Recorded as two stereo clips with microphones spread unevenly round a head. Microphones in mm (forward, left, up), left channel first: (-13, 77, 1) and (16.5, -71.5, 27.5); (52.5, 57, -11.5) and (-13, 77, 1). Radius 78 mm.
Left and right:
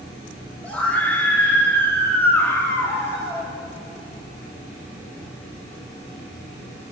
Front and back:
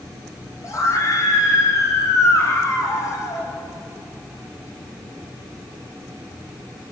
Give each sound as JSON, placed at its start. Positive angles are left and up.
{"t": 0.6, "sound": "a scream", "azimuth_deg": 20, "distance_m": 5.5}